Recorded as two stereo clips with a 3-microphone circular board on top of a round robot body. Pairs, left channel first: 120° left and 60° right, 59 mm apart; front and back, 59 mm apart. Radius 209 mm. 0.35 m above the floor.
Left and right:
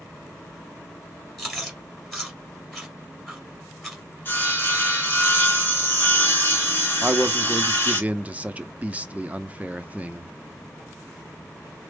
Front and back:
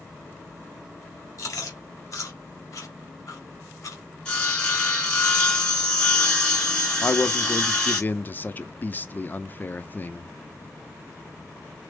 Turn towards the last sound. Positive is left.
turn(degrees=-20)